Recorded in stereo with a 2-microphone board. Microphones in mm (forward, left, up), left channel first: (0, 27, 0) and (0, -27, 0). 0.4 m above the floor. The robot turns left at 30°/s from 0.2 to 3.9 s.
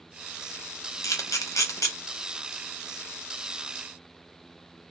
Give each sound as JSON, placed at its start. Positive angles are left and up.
{"t": 1.0, "sound": "a camera shutter", "side_deg": 70, "distance_m": 0.7}